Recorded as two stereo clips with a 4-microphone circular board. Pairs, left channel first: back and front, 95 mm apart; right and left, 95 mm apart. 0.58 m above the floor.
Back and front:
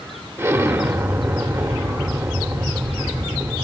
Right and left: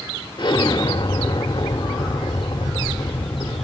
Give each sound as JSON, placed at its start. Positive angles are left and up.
{"t": 0.4, "sound": "an explosion", "azimuth_deg": -55, "distance_m": 0.8}